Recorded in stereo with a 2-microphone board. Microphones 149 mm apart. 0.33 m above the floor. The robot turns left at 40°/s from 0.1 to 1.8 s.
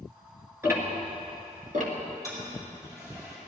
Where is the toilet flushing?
25° right (ahead or behind), 5 m.